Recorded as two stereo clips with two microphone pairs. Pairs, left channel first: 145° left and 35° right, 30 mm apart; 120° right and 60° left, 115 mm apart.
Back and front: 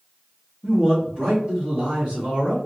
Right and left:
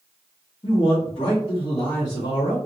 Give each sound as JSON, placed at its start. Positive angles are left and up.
{"t": 0.6, "sound": "a man speaking", "azimuth_deg": -90, "distance_m": 1.3}